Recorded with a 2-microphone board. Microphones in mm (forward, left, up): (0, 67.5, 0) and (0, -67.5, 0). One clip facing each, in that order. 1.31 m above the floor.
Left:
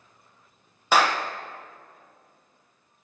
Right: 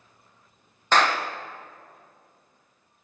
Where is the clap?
10° left (ahead or behind), 0.8 m.